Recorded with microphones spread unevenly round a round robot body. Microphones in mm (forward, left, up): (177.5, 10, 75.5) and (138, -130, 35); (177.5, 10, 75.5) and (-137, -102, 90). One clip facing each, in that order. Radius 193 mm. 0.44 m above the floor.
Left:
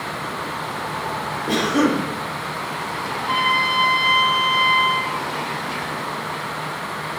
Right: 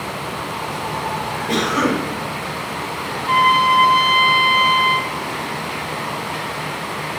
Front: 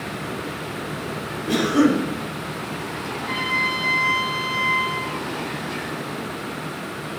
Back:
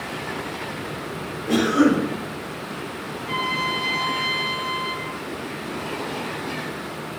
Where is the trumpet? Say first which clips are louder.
Right 7 dB, front 1 dB; 30° right, 1.7 m.